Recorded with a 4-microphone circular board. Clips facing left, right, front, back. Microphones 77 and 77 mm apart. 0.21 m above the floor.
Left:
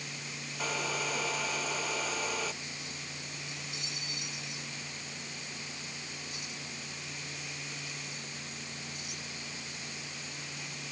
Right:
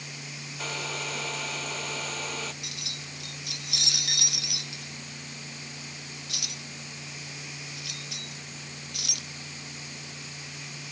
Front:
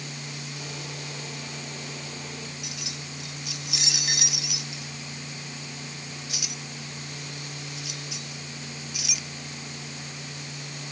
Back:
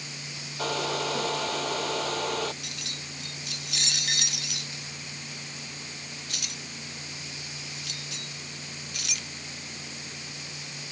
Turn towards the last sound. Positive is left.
turn(degrees=-85)